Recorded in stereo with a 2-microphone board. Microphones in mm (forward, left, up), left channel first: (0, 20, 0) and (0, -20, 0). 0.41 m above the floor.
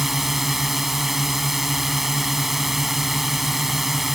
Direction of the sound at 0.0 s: 5° right (ahead or behind).